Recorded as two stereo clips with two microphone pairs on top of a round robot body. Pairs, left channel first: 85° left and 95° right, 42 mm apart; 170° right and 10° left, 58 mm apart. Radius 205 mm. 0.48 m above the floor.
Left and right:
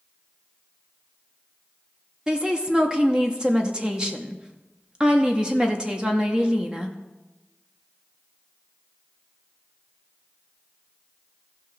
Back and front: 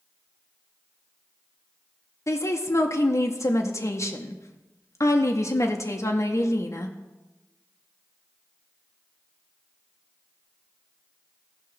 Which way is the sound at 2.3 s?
160° right.